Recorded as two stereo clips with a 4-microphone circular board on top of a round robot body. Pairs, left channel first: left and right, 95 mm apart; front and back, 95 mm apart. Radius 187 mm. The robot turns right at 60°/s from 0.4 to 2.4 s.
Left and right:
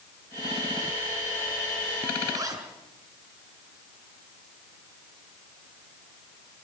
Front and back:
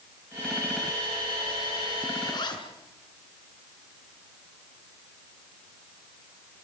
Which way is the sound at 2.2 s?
50° right.